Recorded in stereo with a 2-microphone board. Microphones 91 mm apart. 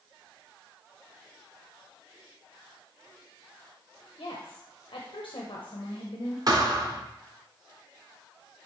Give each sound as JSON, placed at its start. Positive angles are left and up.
{"t": 4.2, "sound": "a woman speaking", "side_deg": 65, "distance_m": 0.9}
{"t": 6.5, "sound": "a thud", "side_deg": -45, "distance_m": 1.5}